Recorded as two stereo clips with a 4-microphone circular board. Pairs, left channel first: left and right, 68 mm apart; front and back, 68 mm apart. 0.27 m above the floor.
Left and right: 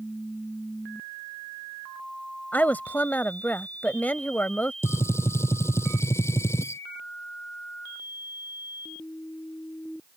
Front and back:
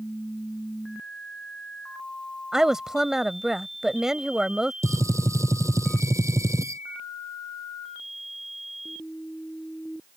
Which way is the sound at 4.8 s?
140° left.